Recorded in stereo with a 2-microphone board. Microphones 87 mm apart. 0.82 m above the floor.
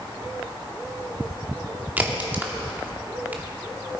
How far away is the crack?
About 2 m.